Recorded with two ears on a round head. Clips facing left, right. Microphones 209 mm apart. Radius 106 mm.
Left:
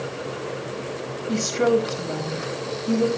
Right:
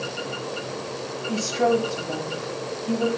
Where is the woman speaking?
30° left (ahead or behind), 5 m.